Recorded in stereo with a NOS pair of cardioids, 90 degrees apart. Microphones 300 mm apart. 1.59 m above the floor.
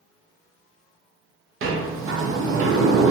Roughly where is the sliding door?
Ahead right.